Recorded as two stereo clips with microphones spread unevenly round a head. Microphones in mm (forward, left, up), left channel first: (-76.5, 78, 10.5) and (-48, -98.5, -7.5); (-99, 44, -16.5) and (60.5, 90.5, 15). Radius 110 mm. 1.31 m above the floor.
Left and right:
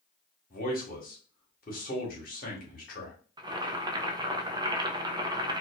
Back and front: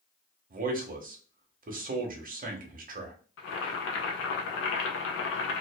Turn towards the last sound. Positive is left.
turn(degrees=-150)